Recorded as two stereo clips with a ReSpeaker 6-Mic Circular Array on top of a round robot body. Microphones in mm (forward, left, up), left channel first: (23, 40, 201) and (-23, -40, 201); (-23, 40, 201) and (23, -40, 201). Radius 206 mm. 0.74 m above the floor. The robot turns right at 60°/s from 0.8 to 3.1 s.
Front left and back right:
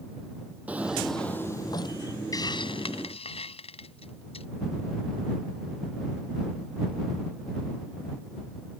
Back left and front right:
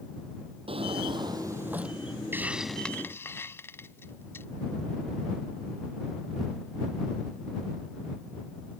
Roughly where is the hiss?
Ahead.